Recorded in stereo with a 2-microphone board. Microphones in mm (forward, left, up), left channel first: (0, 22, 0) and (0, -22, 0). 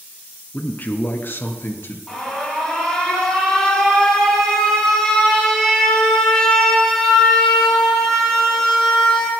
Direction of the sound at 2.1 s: 10° left (ahead or behind).